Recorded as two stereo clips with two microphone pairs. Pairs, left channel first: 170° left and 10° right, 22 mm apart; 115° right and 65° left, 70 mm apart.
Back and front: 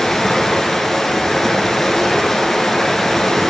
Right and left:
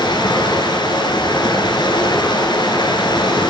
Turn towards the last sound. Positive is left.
turn(degrees=-105)